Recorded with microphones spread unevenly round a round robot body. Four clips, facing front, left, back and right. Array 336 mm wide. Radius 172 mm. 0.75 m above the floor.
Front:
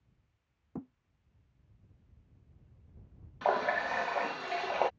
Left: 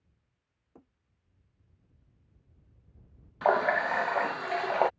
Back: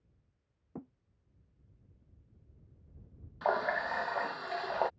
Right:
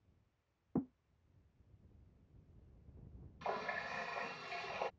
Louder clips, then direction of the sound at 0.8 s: Right 19 dB, front 3 dB; 75° right.